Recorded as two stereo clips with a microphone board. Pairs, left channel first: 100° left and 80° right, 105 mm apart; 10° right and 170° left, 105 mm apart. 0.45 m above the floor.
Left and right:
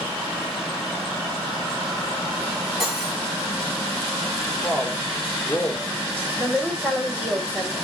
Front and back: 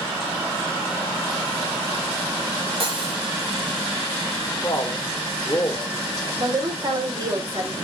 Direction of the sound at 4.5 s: 30° left.